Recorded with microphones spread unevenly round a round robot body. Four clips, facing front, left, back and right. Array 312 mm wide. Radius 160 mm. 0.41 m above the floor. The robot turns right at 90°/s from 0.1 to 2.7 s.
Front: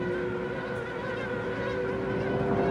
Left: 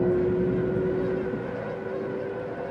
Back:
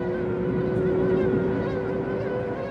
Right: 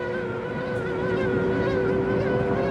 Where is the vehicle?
95° left; by 2.7 s 35° right.